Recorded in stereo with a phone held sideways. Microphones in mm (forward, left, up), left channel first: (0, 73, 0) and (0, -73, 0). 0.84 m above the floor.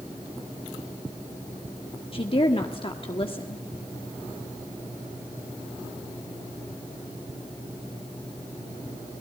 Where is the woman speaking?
40° left (ahead or behind), 1.5 m.